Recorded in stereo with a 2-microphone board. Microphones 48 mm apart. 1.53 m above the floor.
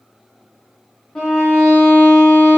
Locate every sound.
1.1 s a violin: 15° left (ahead or behind), 0.9 m